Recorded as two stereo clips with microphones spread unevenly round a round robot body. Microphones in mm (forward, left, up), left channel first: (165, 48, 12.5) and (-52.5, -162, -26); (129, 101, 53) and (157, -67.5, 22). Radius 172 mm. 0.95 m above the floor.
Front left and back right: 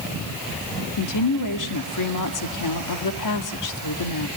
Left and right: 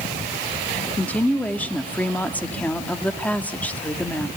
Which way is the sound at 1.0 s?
15° left.